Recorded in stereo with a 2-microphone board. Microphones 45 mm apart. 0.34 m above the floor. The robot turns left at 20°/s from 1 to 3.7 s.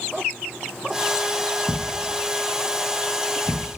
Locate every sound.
1.7 s a thud: centre (ahead or behind), 3 m; by 3.8 s 40° left (ahead or behind), 3 m